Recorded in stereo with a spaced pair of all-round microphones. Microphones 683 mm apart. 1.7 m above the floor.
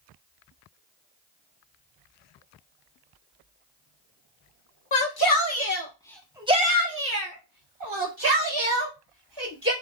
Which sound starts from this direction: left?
A shout, at 4.9 s.